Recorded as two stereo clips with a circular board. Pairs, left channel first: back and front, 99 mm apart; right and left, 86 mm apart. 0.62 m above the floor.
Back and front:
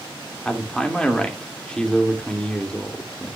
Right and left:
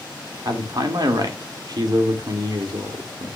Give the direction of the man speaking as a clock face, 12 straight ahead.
9 o'clock.